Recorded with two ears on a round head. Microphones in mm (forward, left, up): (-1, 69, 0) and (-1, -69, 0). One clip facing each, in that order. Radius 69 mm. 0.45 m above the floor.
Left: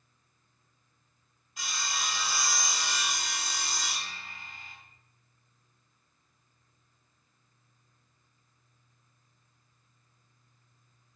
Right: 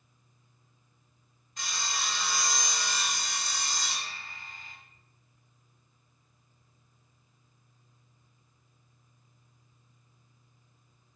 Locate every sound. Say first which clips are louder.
1.6 s sawing: even; 5° left (ahead or behind), 1.2 m